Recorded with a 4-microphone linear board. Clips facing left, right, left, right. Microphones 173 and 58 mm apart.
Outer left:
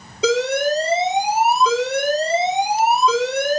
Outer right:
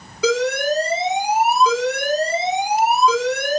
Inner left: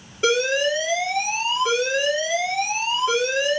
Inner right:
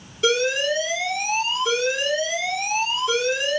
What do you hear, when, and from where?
0.2 s an alarm: 25° left (ahead or behind), 2.5 m